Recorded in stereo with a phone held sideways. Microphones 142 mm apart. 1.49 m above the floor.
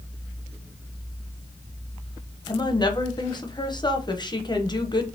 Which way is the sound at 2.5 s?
35° left (ahead or behind).